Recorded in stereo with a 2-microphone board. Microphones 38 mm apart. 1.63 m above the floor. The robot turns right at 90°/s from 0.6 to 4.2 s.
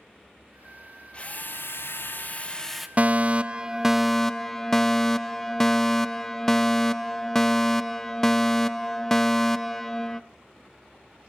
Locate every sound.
1.1 s a drill: 30° left, 1.8 m; by 2.9 s 175° right, 1.8 m
3.0 s a fire alarm: 95° right, 0.7 m; by 10.2 s 15° left, 0.7 m